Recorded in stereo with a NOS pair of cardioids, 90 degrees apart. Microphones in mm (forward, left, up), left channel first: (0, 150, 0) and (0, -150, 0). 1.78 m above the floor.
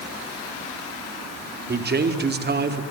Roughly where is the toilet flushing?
I don't hear a toilet flushing.